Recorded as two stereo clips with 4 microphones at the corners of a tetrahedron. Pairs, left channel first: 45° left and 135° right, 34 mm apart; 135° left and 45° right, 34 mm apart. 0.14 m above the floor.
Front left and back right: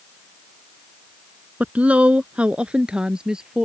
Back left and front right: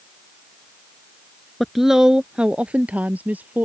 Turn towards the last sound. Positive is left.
turn(degrees=-65)